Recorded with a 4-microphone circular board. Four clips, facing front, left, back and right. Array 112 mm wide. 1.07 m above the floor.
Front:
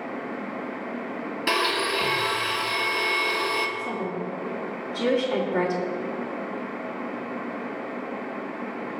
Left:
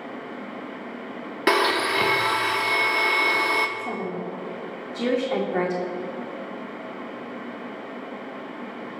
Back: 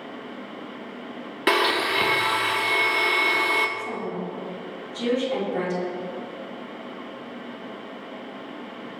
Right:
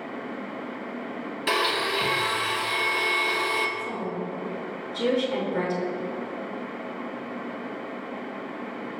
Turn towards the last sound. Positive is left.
turn(degrees=75)